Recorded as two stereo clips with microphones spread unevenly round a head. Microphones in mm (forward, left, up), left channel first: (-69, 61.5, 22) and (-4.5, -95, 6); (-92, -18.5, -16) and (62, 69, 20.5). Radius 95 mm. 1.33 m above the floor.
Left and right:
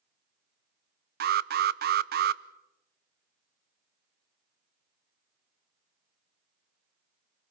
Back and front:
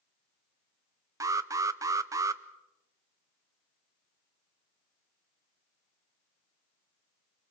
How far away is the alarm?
About 0.6 m.